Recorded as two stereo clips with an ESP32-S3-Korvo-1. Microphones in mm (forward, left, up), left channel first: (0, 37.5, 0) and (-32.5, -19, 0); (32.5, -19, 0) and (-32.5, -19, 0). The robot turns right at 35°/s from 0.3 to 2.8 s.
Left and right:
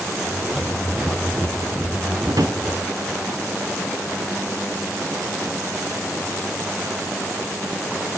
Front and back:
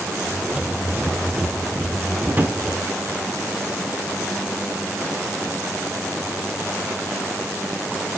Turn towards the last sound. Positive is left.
turn(degrees=-110)